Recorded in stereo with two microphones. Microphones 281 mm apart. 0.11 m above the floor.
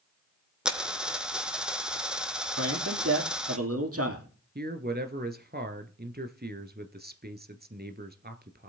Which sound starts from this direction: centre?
A dropped coin, at 0.7 s.